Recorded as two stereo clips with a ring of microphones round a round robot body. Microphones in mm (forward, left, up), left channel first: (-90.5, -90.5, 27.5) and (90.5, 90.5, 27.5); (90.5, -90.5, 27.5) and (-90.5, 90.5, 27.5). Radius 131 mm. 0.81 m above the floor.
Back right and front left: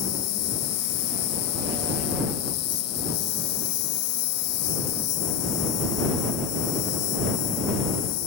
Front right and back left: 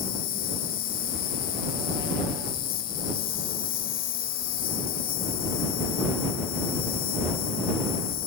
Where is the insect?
105° right.